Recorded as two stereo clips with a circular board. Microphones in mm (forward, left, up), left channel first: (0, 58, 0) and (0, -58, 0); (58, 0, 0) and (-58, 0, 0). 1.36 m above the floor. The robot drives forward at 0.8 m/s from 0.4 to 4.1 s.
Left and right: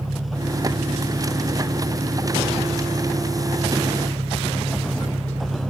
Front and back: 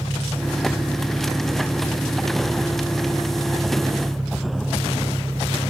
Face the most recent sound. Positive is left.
turn(degrees=-100)